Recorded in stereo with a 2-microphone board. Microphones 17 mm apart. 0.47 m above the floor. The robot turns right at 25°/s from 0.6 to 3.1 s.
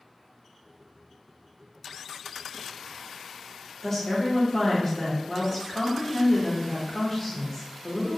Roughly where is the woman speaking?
Left.